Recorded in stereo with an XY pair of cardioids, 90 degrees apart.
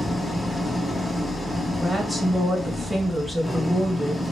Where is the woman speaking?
5° right, 1.5 m.